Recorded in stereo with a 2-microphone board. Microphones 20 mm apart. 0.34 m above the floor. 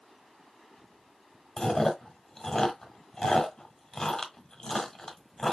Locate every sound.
1.6 s chewing: 35° left (ahead or behind), 1.2 m